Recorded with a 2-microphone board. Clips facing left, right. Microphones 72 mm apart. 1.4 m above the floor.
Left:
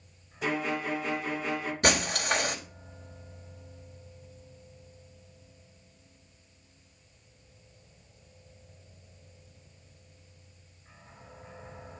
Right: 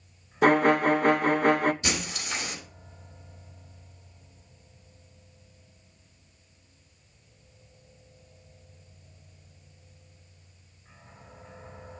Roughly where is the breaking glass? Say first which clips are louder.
Left 6 dB; left.